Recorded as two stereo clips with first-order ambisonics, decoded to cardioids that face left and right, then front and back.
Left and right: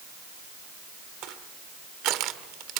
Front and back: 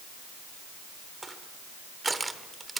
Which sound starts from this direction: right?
Crushing, at 1.2 s.